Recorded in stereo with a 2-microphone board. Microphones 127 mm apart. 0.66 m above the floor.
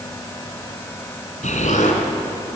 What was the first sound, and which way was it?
An explosion, 75° left (ahead or behind).